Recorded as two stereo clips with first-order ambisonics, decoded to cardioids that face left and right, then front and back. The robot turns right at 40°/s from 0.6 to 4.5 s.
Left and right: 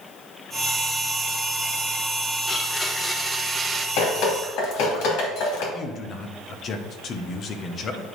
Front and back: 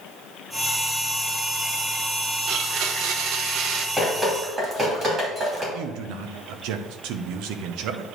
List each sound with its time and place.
2.5 s a blender: 150° left, 0.7 m; by 3.9 s 155° right, 0.7 m
4.0 s dripping: 95° left, 2.5 m; by 5.6 s 115° left, 2.5 m
5.7 s a man speaking: 150° left, 0.9 m